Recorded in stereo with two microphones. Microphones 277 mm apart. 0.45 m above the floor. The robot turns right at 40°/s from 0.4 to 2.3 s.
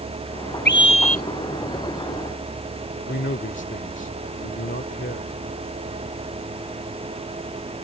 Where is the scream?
35° left (ahead or behind); by 1.2 s 60° left (ahead or behind).